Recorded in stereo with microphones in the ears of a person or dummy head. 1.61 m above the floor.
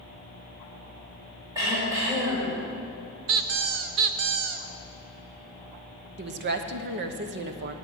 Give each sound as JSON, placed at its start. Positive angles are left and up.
{"t": 1.6, "sound": "throat clearing", "side_deg": -15, "distance_m": 5.5}
{"t": 3.3, "sound": "a squeak", "side_deg": -40, "distance_m": 0.6}
{"t": 6.2, "sound": "a woman speaking", "side_deg": -55, "distance_m": 1.0}